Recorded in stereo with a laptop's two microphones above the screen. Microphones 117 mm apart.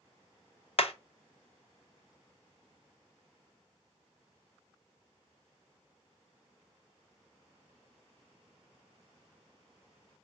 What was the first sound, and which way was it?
Hammering, 60° left (ahead or behind).